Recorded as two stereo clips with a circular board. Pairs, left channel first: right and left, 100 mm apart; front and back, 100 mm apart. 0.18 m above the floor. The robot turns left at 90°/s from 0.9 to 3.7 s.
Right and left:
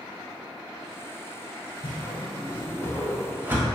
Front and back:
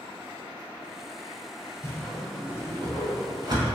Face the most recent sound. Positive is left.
turn(degrees=135)